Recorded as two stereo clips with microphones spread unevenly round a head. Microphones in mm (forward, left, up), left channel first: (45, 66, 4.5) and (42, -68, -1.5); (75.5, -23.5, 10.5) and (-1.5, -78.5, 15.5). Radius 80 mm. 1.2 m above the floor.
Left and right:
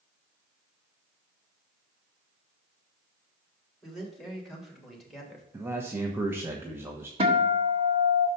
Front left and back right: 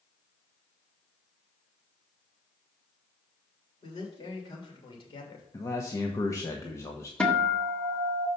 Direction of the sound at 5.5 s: 20° right.